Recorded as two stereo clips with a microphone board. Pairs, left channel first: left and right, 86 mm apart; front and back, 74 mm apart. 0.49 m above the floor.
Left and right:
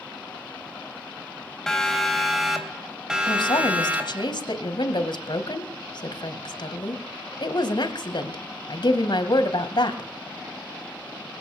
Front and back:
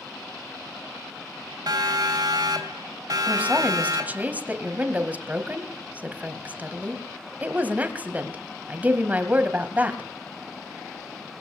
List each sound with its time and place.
1.7 s a siren: 175° left, 3.5 m; by 4.3 s 155° right, 3.5 m
3.3 s a woman speaking: 115° left, 2.5 m